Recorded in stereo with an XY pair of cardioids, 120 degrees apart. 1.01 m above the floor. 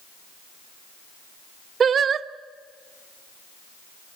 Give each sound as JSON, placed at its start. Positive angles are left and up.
{"t": 1.8, "sound": "singing", "azimuth_deg": -45, "distance_m": 0.7}